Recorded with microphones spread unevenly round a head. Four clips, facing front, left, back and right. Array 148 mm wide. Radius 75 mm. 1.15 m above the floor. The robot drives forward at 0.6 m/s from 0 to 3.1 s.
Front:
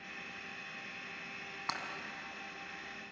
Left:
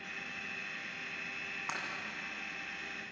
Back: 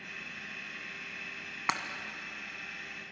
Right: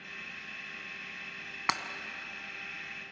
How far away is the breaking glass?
About 1.6 m.